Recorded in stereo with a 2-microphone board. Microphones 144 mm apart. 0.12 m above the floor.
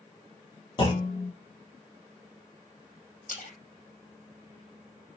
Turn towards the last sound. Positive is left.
turn(degrees=70)  # may be behind; listen again after turning